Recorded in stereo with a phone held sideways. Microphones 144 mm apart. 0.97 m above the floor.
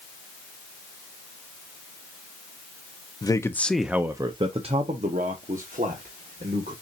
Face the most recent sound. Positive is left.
turn(degrees=-75)  # may be behind; listen again after turning